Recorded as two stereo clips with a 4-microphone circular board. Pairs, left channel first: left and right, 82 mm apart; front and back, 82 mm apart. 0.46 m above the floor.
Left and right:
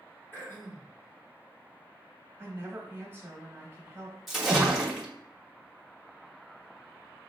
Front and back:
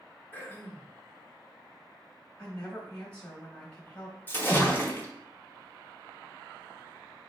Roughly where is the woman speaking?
Ahead right.